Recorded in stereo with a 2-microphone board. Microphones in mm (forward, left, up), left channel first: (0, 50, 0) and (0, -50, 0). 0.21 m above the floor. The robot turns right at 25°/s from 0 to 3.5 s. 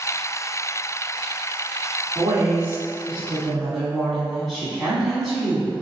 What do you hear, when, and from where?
2.1 s a woman speaking: 35° right, 1.3 m; by 5.7 s straight ahead, 1.3 m